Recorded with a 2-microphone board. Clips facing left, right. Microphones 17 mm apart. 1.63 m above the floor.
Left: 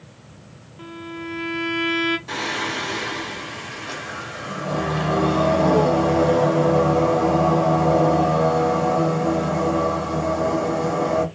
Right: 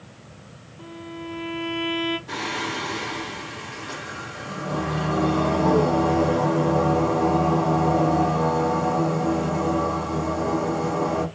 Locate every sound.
0.8 s a violin: 40° left (ahead or behind), 0.6 m
2.3 s singing: 30° left (ahead or behind), 1.5 m